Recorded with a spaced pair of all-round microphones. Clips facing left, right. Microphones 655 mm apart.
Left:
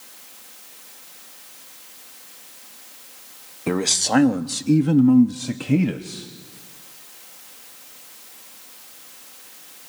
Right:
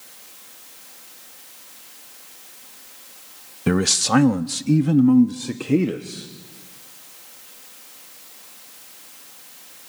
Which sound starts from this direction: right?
A man speaking, at 3.7 s.